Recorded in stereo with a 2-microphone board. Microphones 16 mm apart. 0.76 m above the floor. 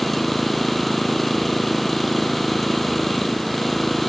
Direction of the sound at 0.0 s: 15° left (ahead or behind).